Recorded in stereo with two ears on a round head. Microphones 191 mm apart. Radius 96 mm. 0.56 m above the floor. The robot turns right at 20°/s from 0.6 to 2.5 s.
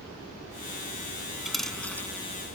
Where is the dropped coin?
Centre (ahead or behind); by 2.1 s 10° left (ahead or behind).